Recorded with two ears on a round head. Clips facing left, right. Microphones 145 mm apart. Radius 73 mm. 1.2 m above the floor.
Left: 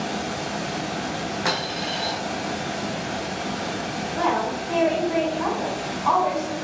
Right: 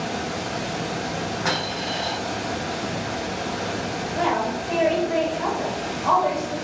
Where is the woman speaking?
35° right (ahead or behind), 1.2 m.